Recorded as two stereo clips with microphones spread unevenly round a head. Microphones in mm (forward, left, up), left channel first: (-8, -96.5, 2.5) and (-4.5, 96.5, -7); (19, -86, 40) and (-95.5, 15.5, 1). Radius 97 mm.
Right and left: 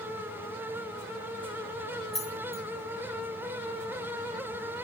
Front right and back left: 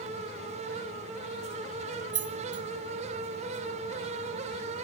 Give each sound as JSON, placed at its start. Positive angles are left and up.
{"t": 2.1, "sound": "keys jangling", "azimuth_deg": 180, "distance_m": 1.4}